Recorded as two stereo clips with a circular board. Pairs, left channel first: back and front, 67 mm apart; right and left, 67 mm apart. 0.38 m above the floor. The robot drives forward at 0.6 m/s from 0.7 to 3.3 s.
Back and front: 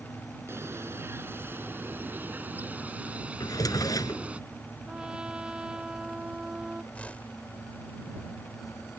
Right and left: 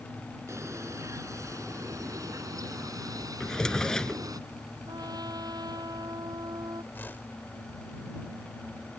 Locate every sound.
0.5 s a bird: 50° left; by 4.4 s 70° left
3.4 s a drawer: 170° right
4.9 s a trumpet: 75° left
6.9 s a whoosh: 125° right